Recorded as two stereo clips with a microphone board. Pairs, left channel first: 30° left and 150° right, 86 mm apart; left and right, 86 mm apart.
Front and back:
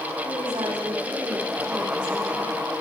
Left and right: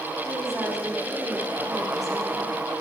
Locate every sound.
0.2 s a woman speaking: straight behind, 7.5 m